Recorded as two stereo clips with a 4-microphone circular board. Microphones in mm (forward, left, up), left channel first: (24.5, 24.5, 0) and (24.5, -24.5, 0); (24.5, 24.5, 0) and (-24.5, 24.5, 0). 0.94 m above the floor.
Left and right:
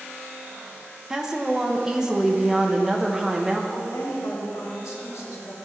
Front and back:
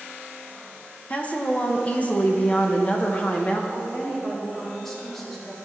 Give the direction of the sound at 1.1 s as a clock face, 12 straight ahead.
1 o'clock.